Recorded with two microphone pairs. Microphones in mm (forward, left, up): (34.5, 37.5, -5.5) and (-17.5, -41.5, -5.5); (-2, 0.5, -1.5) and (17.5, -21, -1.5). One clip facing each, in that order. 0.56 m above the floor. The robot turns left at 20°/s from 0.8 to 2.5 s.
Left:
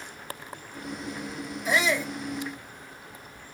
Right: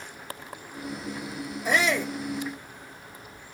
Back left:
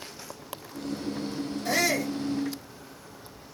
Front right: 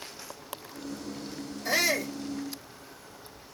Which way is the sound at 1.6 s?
115° right.